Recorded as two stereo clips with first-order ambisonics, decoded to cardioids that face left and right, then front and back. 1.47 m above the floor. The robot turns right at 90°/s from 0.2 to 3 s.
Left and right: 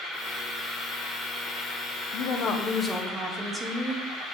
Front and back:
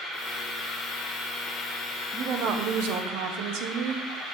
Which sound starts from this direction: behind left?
A woman speaking, at 2.1 s.